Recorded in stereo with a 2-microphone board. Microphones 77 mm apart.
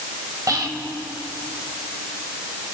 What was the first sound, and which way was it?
Whispering, 55° right (ahead or behind).